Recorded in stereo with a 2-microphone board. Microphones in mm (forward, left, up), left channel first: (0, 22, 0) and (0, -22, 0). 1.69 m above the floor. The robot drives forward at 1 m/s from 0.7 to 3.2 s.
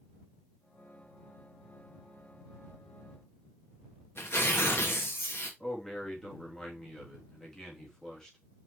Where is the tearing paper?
65° left (ahead or behind), 1.8 m.